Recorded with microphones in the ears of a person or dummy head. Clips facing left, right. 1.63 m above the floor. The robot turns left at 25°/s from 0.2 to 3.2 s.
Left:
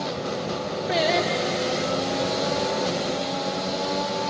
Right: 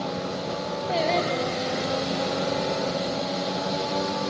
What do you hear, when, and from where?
0.9 s singing: 20° left (ahead or behind), 1.0 m; by 1.9 s 5° right (ahead or behind), 1.0 m